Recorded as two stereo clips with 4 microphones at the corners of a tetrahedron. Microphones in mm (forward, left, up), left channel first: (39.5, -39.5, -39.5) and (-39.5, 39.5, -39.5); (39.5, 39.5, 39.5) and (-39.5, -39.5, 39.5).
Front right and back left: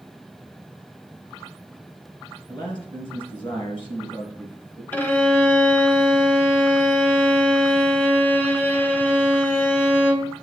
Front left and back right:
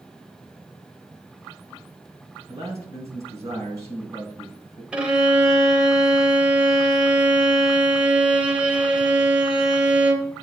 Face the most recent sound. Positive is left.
turn(degrees=-70)